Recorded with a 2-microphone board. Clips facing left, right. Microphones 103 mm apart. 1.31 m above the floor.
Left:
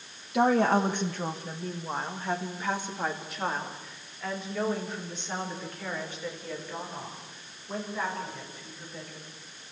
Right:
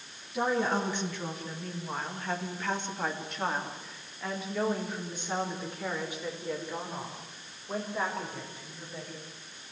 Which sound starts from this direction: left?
A woman speaking, at 0.3 s.